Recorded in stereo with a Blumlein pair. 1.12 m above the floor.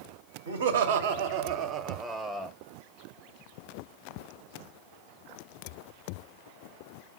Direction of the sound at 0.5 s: 65° right.